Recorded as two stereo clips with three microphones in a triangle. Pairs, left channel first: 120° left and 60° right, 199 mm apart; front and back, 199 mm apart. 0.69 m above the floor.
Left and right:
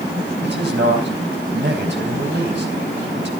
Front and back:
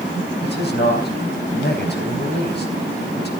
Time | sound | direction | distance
0.4 | a man speaking | 35° right | 4 m